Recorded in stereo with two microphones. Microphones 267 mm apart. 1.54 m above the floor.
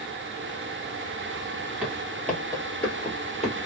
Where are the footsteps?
5° right (ahead or behind), 1.8 m; by 3.6 s 30° left (ahead or behind), 1.7 m.